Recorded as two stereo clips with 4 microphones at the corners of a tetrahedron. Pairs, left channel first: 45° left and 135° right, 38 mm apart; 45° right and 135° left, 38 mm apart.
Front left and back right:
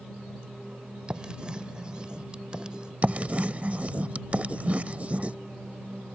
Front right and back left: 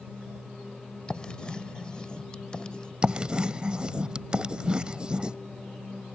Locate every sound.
1.1 s writing: 90° right
3.0 s writing: 170° right